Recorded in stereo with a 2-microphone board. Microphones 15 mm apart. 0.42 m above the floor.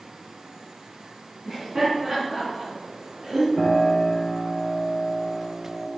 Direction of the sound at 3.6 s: 65° right (ahead or behind).